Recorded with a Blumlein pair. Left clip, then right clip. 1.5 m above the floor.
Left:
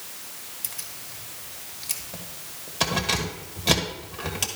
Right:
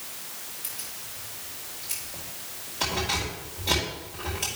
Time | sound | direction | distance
0.6 | keys jangling | 35° left | 1.6 m